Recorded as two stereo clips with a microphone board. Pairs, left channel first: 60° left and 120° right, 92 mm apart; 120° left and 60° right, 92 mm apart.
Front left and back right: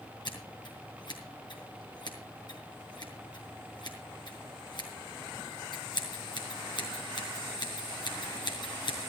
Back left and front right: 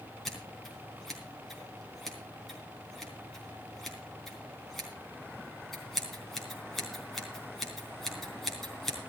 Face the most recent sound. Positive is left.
turn(degrees=35)